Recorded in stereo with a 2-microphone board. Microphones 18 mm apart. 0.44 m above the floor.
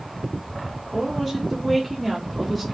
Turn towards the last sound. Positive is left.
turn(degrees=0)  # may be behind; listen again after turning